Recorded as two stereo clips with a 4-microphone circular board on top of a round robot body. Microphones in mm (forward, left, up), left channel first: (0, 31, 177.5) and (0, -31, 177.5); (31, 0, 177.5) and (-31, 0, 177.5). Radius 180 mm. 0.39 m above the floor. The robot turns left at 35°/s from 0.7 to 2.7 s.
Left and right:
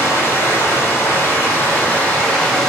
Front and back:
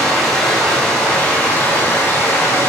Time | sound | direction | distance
0.0 | running water | 80° left | 1.0 m